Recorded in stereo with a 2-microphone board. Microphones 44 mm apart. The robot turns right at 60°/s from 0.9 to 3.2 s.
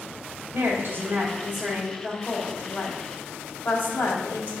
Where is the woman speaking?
55° right, 2.5 m; by 4.5 s 80° left, 2.5 m.